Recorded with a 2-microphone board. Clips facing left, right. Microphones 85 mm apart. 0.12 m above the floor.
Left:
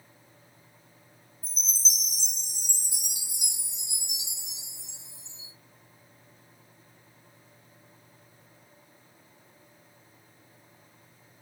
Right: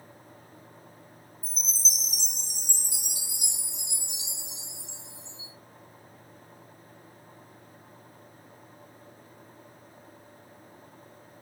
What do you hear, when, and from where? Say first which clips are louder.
1.4 s a chime: even; 20° left (ahead or behind), 1.0 m